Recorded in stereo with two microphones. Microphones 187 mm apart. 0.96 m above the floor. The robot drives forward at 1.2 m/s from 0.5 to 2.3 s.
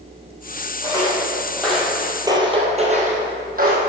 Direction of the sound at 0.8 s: 15° left (ahead or behind).